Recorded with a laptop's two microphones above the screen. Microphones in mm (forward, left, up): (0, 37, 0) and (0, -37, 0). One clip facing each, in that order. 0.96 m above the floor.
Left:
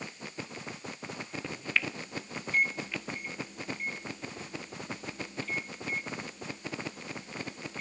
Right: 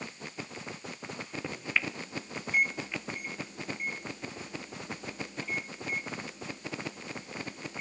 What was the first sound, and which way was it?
A microwave, 10° right (ahead or behind).